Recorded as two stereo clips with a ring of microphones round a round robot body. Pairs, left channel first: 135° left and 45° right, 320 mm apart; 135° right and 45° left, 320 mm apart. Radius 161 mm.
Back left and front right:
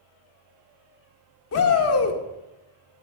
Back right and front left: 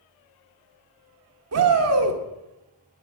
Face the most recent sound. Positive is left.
turn(degrees=90)